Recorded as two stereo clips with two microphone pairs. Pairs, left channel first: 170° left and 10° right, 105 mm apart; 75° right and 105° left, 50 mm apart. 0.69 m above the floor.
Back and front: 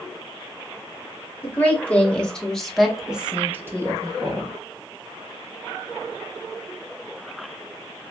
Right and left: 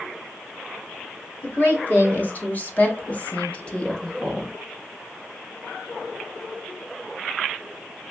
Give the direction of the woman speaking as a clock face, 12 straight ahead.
4 o'clock.